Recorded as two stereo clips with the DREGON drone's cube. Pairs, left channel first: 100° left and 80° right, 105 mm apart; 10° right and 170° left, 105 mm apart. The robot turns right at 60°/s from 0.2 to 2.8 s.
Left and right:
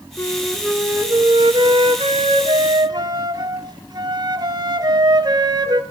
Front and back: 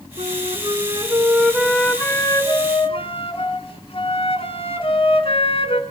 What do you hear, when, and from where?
0.2 s a flute: 175° left, 3 m; by 5.8 s 30° right, 3 m